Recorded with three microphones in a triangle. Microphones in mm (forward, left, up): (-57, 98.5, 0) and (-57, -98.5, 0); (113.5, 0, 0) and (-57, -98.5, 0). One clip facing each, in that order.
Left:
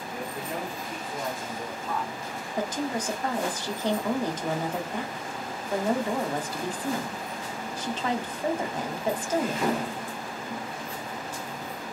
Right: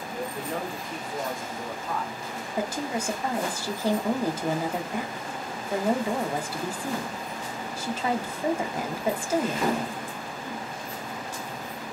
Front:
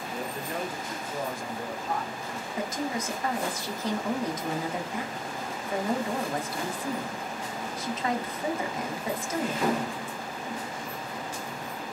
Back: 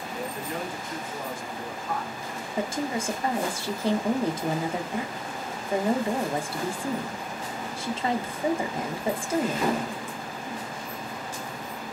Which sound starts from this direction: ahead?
A man speaking, at 0.1 s.